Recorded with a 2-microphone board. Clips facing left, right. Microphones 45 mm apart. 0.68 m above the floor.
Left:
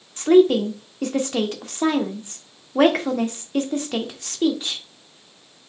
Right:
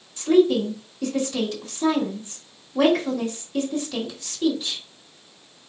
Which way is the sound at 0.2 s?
50° left (ahead or behind).